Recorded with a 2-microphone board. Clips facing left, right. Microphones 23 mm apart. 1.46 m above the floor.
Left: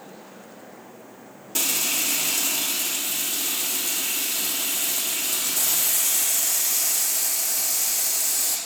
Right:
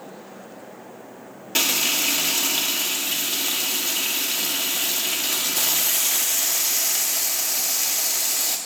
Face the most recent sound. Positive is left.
turn(degrees=-35)  # may be behind; listen again after turning